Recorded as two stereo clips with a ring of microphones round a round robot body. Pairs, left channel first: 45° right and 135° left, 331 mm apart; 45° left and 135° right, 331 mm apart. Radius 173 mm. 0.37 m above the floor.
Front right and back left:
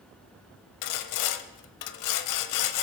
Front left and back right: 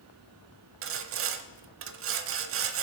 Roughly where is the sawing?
Right.